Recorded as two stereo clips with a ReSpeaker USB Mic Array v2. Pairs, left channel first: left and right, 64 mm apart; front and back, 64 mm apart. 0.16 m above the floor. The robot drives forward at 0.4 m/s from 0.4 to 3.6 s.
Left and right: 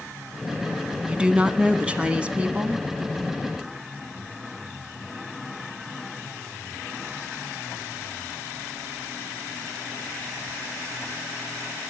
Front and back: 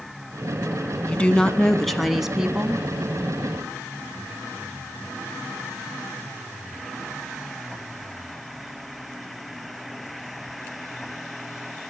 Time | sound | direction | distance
1.1 | a woman speaking | 40° right | 1.1 m